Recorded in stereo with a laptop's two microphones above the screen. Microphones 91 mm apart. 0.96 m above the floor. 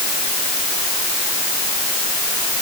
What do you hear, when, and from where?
Only background noise.